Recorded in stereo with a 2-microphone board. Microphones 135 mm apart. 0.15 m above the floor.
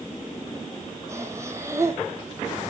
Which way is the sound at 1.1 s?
20° right (ahead or behind).